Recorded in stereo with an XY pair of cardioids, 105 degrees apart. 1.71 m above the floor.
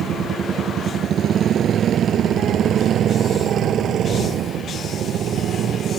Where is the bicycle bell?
I don't hear a bicycle bell.